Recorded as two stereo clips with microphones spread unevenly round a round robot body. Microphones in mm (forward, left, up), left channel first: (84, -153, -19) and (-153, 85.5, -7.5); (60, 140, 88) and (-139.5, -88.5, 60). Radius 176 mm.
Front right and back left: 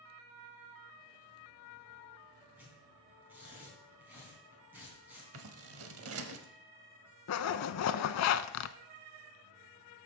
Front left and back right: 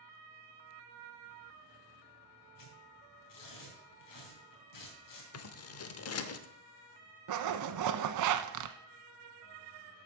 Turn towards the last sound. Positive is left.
turn(degrees=-95)